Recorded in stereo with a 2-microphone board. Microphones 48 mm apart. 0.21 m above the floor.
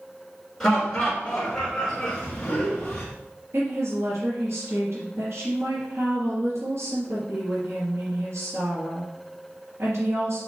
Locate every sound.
0.6 s laughter: 10° left (ahead or behind), 3.5 m; by 3.1 s 15° left (ahead or behind), 2.0 m
3.5 s a woman speaking: 60° right (ahead or behind), 3.5 m